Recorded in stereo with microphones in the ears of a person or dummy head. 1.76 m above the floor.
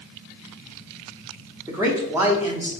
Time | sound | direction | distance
1.7 | a man speaking | 15° right (ahead or behind) | 0.7 m